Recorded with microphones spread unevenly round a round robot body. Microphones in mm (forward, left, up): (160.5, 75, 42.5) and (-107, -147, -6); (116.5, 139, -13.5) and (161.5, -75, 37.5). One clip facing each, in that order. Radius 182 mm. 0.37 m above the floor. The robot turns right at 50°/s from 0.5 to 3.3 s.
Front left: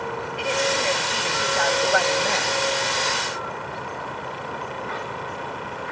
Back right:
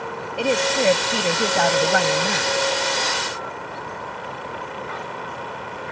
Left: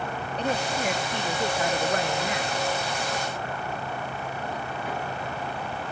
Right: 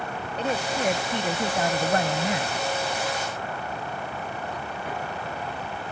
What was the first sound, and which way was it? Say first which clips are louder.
A woman speaking: back right 6 dB, right 1 dB; 170° right.